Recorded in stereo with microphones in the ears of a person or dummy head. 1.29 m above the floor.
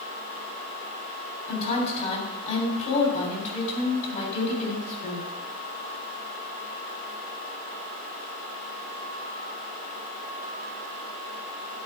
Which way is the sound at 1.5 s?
45° left (ahead or behind).